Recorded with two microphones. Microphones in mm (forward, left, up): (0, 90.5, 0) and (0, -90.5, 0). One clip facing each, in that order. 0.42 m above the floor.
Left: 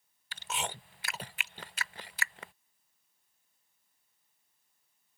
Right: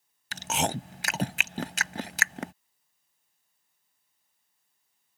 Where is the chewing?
80° right.